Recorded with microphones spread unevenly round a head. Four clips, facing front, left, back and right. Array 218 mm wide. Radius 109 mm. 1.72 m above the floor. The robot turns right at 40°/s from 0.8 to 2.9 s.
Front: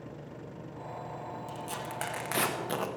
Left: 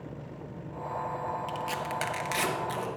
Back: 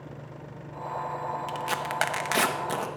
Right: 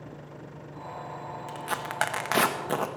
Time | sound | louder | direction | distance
1.5 | tearing paper | left 1 dB, back 8 dB | 155° right | 1.0 m